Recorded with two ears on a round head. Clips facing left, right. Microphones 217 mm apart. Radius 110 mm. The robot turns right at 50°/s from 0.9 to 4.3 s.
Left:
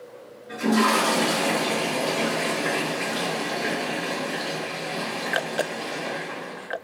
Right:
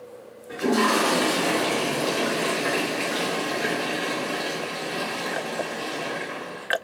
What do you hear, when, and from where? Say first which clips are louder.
0.5 s a toilet flushing: even; 145° left, 1.3 m; by 6.7 s 45° right, 1.3 m